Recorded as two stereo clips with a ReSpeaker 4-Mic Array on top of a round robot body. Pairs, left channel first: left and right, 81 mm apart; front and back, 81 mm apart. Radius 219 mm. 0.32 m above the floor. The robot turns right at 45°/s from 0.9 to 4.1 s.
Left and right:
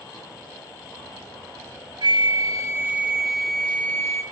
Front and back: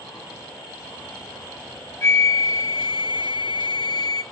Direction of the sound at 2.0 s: 60° right.